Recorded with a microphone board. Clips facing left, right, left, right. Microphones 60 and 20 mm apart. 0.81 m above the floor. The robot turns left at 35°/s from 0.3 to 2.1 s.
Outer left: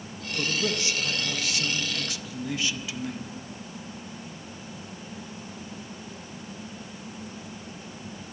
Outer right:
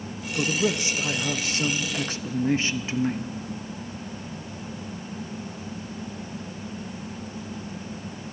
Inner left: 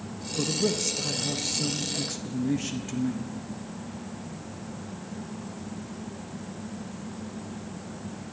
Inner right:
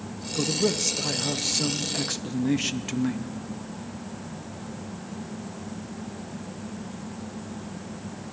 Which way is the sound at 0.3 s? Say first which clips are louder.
Outer right 4 dB, inner right 2 dB; 30° right.